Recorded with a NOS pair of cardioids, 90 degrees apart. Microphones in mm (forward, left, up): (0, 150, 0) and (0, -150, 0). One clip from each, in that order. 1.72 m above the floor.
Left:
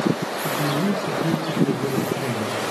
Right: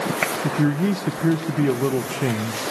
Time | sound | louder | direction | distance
0.4 | a man speaking | even | 60° right | 1.6 m